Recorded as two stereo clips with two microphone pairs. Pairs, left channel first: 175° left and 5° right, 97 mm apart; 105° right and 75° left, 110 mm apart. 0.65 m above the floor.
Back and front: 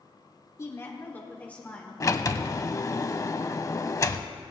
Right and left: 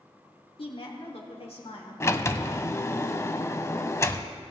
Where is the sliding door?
155° right, 0.6 m.